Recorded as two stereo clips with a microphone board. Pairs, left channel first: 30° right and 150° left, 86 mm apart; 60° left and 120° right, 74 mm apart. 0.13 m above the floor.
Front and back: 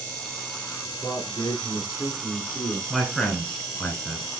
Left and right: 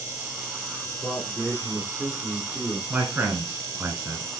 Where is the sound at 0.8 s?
Straight ahead, 1.6 m.